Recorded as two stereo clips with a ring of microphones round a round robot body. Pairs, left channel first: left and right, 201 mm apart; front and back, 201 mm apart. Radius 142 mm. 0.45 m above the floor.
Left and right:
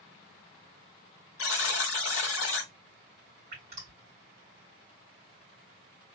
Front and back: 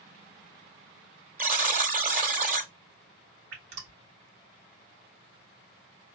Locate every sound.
1.4 s a buzzer: 130° left, 1.3 m
3.5 s dripping: 150° right, 2.5 m